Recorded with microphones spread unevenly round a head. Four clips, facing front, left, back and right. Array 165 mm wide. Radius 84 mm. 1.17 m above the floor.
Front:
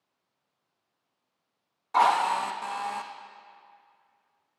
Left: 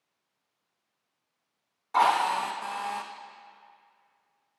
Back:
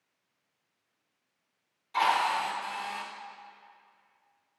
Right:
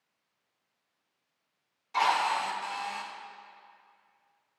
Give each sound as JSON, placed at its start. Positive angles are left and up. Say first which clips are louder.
{"t": 1.9, "sound": "a drill", "louder": "left 4 dB, front 4 dB", "azimuth_deg": 40, "distance_m": 0.8}